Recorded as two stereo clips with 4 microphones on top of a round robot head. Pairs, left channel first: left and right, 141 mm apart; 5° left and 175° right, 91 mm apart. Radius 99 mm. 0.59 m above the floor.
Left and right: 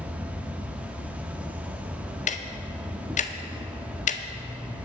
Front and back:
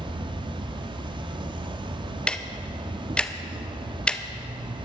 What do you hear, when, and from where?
0.0 s an insect: 170° right, 0.7 m
2.3 s ticking: 80° left, 0.8 m